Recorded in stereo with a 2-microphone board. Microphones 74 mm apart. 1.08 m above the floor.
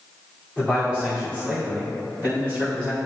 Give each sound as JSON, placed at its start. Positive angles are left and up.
{"t": 0.6, "sound": "a man speaking", "side_deg": -15, "distance_m": 2.5}